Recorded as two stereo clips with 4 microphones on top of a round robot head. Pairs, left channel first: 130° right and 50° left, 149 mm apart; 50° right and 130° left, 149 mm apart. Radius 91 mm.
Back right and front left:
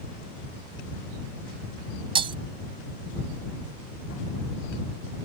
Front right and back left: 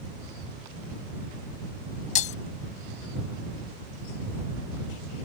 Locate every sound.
2.1 s breaking glass: 5° right